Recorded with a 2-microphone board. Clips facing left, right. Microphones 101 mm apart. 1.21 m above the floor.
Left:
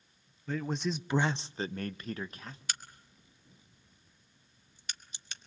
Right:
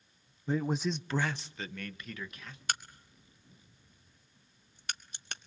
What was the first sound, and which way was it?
A man speaking, 20° right (ahead or behind).